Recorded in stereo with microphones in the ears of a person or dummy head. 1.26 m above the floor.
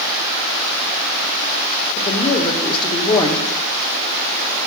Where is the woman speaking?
25° left (ahead or behind), 1.1 m.